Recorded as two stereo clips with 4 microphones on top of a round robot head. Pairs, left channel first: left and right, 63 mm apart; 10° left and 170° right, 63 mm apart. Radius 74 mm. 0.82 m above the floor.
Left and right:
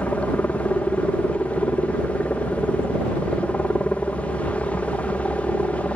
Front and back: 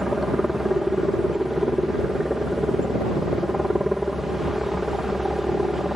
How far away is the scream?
I don't hear a scream.